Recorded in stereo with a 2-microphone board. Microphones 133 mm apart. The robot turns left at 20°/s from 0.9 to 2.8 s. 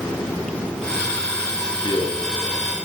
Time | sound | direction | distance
1.6 | a man speaking | 30° left (ahead or behind) | 7 m